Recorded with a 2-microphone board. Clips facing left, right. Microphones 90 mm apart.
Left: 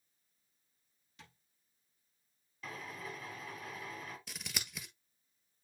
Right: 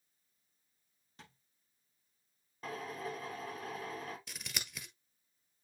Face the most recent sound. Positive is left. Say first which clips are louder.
# left 1 dB
turn(degrees=0)  # may be behind; listen again after turning